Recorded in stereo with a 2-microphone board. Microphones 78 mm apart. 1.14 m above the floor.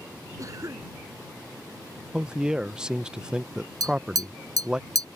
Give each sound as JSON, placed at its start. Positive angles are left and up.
{"t": 0.4, "sound": "a cough", "side_deg": -45}
{"t": 2.1, "sound": "a man speaking", "side_deg": -10}
{"t": 3.8, "sound": "tapping", "side_deg": -50}